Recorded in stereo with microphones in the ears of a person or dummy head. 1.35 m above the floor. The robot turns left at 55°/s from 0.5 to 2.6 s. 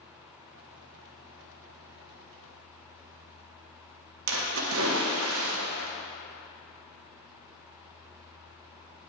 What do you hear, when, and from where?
4.3 s a splash: 80° right, 1.2 m